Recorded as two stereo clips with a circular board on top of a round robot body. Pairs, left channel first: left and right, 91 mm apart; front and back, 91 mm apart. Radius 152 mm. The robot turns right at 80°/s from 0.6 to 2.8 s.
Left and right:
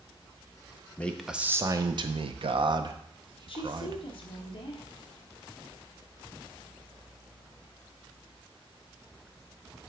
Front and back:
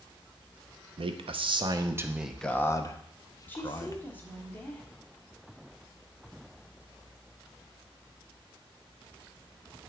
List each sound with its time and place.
1.0 s a man speaking: 160° left, 0.7 m; by 4.0 s 55° right, 0.7 m
3.5 s a woman speaking: 70° left, 1.3 m